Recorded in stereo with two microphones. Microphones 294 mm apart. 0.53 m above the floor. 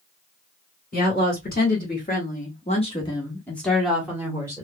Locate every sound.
0.9 s a woman speaking: 30° left (ahead or behind), 2 m; by 4.7 s 10° right (ahead or behind), 1.7 m